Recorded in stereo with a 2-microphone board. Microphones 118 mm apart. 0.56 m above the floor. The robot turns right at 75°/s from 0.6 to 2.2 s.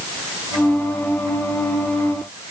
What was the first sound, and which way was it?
Only background noise.